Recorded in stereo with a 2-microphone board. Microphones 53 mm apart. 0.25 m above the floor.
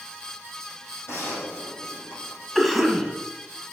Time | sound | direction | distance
1.1 | a gunshot | 55° left (ahead or behind) | 4.5 m
2.5 | a cough | centre (ahead or behind) | 1.6 m